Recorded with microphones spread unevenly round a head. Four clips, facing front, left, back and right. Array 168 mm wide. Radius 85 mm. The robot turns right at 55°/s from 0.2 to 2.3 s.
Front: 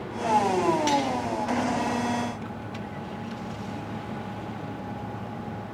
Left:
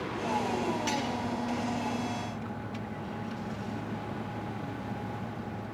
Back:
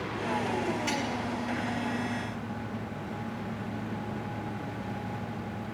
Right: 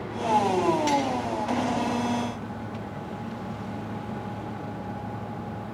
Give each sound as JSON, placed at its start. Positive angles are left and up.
{"t": 0.9, "sound": "cutlery clinking", "azimuth_deg": -20, "distance_m": 8.5}